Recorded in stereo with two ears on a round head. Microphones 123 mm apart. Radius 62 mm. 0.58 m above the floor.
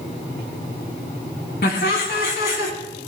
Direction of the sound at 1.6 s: 80° left.